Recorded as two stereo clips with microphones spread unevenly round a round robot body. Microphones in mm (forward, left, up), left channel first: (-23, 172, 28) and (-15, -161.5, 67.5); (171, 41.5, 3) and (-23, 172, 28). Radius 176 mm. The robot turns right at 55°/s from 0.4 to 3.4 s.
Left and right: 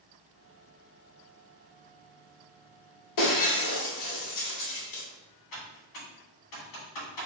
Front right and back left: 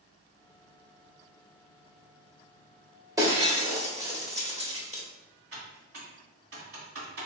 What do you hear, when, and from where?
3.2 s breaking glass: 70° left, 1.5 m; by 5.0 s 80° left, 1.5 m
5.5 s typing on a keyboard: 120° left, 2.0 m